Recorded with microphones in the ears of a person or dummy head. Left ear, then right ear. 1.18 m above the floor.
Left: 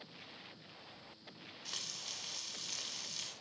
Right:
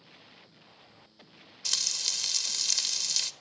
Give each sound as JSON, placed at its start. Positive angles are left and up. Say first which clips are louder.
{"t": 1.6, "sound": "frying", "louder": "right 14 dB", "side_deg": -70, "distance_m": 1.7}